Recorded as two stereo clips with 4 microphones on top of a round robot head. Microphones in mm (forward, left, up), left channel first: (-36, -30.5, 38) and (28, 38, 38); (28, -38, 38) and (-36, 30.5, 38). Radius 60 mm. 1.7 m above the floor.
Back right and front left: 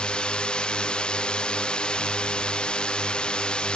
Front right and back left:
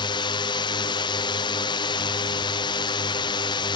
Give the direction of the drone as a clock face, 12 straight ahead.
2 o'clock.